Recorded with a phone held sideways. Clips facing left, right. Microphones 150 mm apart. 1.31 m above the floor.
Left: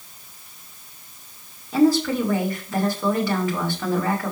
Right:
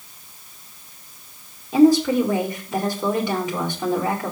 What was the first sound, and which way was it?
A woman speaking, 20° right (ahead or behind).